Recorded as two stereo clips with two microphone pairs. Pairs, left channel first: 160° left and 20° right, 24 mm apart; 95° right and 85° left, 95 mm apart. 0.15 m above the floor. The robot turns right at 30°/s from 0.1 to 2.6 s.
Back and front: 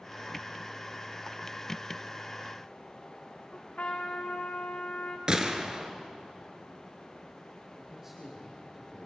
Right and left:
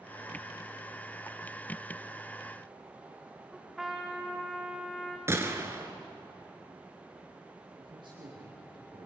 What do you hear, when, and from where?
3.5 s a trumpet: straight behind, 4.5 m
5.3 s a gunshot: 30° left, 2.0 m
7.8 s a man speaking: 55° left, 7 m